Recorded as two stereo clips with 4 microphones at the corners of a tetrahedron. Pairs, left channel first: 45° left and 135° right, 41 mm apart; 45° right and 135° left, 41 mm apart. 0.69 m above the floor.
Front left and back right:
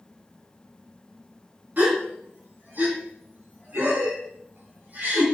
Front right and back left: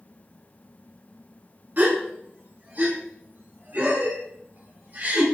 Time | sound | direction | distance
1.8 | a gasp | straight behind | 2.5 m